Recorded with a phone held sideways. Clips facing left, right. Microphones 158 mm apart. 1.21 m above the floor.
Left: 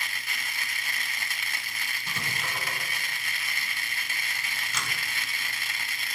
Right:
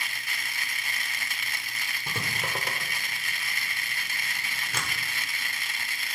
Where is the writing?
55° right (ahead or behind), 1.6 m.